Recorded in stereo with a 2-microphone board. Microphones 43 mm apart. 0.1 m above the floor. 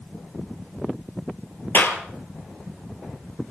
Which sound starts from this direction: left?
A clap, at 1.7 s.